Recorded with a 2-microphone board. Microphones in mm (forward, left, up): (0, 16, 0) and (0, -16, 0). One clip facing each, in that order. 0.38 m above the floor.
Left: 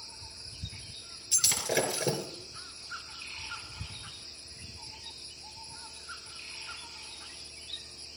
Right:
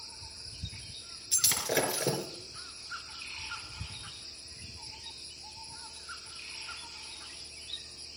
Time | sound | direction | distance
1.3 | breaking glass | 15° right (ahead or behind) | 3.5 m